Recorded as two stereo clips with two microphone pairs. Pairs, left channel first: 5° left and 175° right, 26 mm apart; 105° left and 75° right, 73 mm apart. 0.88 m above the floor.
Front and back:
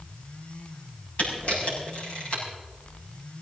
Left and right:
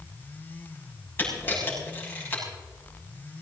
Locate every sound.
1.2 s a camera shutter: 45° left, 6.5 m